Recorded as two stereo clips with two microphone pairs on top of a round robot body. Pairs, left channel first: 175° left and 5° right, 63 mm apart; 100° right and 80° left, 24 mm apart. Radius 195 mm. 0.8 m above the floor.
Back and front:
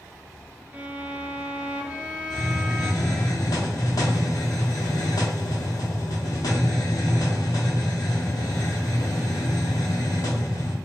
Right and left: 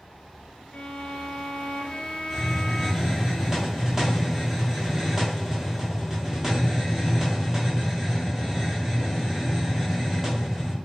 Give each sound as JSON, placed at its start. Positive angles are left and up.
{"t": 0.7, "sound": "a violin", "azimuth_deg": -70, "distance_m": 0.8}
{"t": 2.3, "sound": "a hiss", "azimuth_deg": 155, "distance_m": 1.0}